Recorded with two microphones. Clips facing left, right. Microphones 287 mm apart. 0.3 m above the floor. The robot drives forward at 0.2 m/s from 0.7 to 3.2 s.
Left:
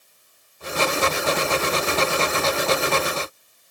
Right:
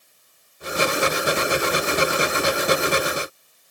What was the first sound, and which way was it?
Only background noise.